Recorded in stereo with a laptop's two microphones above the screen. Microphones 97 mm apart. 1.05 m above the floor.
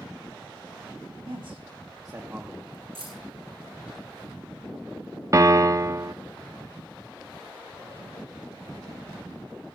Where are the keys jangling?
90° right, 8.5 m.